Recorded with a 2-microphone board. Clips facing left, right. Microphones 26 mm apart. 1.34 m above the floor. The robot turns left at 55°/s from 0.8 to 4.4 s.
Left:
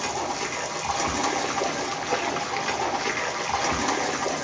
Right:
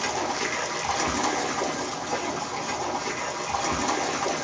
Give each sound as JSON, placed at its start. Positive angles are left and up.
{"t": 0.0, "sound": "running water", "azimuth_deg": -170, "distance_m": 1.5}